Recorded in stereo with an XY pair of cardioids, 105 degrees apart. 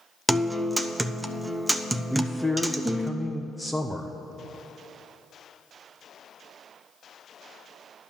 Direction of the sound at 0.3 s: 10° right.